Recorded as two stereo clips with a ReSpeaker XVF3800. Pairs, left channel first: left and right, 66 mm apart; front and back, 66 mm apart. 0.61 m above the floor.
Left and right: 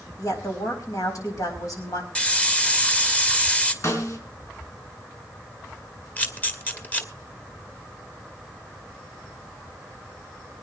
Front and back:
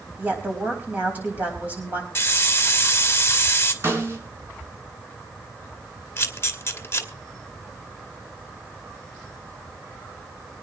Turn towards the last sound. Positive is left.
turn(degrees=30)